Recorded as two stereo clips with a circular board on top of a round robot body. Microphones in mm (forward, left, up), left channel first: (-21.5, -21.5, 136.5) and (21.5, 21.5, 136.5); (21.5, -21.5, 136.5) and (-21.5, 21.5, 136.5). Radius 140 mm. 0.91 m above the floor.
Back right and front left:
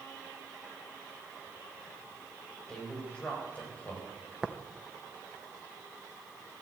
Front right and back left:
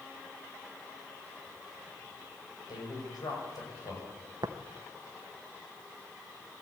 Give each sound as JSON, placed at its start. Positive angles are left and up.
{"t": 2.7, "sound": "a man speaking", "azimuth_deg": -60, "distance_m": 5.0}
{"t": 4.4, "sound": "tapping", "azimuth_deg": 125, "distance_m": 0.9}